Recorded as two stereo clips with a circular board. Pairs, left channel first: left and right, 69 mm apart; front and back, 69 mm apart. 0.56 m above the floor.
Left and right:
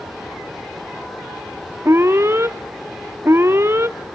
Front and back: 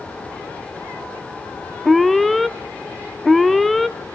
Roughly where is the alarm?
Right.